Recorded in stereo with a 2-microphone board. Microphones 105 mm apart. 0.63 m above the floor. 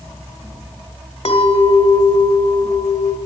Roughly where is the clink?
Left.